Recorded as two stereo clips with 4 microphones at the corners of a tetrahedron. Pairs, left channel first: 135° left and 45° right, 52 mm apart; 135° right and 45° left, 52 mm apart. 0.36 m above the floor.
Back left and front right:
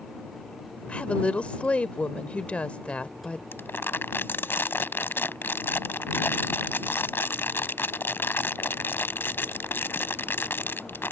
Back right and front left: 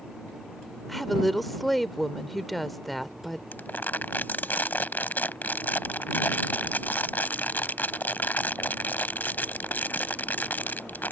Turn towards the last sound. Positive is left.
turn(degrees=175)